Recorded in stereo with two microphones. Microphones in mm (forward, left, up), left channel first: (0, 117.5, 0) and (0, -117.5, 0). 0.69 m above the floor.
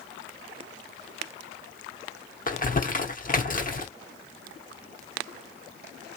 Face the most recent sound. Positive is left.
turn(degrees=35)  # may be behind; listen again after turning